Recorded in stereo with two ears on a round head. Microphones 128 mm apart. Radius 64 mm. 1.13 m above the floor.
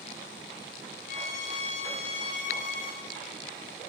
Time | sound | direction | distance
1.1 | a violin | 65° left (ahead or behind) | 6 m